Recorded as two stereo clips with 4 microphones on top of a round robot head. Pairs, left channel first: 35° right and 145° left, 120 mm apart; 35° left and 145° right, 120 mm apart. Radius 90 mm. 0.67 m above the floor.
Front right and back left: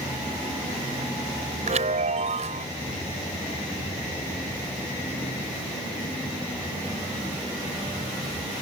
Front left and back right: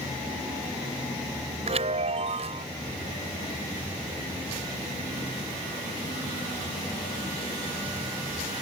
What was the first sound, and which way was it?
A chime, 175° left.